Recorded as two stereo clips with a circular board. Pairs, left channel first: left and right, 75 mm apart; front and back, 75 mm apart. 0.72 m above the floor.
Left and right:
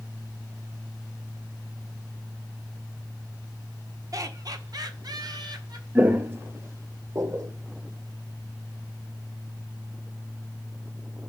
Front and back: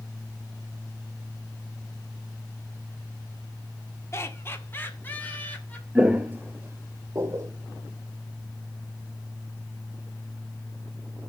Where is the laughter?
50° right, 1.5 m; by 5.8 s 70° right, 2.5 m.